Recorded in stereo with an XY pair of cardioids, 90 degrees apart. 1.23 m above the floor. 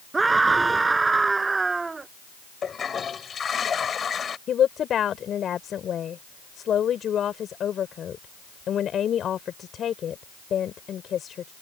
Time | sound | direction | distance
0.1 | a scream | 30° right | ?
2.6 | a toilet flushing | 45° left | ?
4.5 | a woman speaking | 65° left | ?